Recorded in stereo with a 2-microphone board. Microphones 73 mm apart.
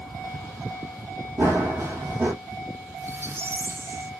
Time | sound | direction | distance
1.4 | running footsteps | 35° right (ahead or behind) | 3.5 m
3.0 | a squeak | 35° right (ahead or behind) | 0.5 m